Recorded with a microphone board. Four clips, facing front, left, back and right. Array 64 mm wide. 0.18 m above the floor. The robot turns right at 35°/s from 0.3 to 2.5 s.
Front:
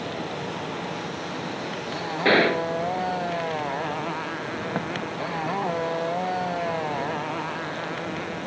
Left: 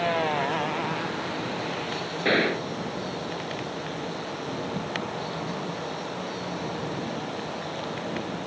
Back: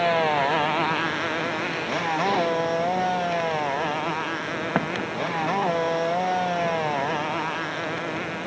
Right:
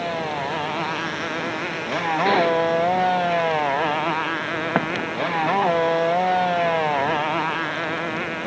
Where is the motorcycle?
Straight behind; by 8.5 s 105° right.